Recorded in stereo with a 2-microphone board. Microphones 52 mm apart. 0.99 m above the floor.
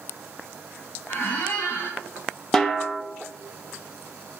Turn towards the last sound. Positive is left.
turn(degrees=5)  # may be behind; listen again after turning